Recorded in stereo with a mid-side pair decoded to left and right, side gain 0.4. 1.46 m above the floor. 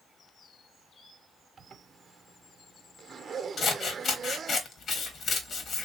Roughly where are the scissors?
Ahead left.